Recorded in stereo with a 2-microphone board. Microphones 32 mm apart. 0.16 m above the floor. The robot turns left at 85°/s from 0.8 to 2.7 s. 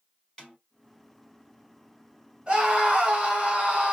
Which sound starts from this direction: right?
A scream, at 2.5 s.